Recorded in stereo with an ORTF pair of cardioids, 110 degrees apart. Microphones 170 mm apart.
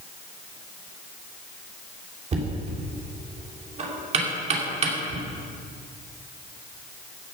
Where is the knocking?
40° right, 2.5 m.